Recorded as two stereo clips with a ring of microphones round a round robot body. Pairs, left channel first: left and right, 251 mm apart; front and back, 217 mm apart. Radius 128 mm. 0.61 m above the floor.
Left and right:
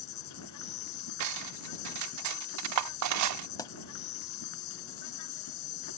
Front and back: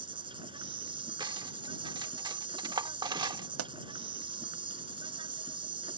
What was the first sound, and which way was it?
An insect, 110° left.